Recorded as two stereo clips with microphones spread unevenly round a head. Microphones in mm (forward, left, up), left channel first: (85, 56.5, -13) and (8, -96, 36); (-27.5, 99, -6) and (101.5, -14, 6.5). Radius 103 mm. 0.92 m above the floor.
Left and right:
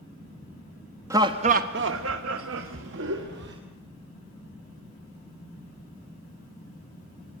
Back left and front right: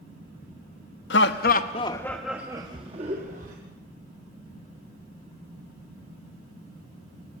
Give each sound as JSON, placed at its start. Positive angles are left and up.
{"t": 1.1, "sound": "laughter", "azimuth_deg": 165, "distance_m": 1.0}